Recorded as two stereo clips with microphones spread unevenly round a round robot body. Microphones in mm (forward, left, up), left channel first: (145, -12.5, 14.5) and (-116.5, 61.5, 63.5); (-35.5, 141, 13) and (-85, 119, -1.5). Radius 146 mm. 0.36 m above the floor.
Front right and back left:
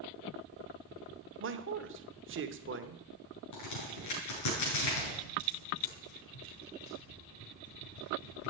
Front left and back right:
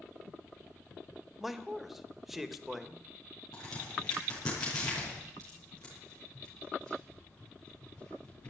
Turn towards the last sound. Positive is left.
turn(degrees=-30)